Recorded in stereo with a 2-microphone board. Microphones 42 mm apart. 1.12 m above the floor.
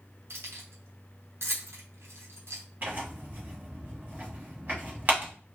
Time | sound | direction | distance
0.3 | keys jangling | 70° right (ahead or behind) | 1.0 m
2.8 | tearing paper | 40° right (ahead or behind) | 1.5 m